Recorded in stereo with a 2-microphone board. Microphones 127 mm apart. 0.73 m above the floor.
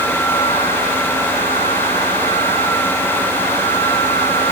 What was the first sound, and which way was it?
Only background noise.